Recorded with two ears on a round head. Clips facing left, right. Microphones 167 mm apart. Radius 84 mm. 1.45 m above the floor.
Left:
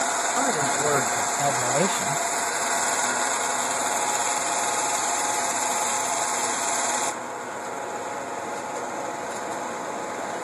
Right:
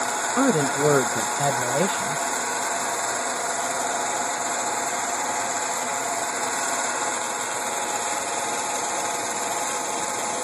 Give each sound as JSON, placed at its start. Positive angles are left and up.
{"t": 0.4, "sound": "a man speaking", "side_deg": -55}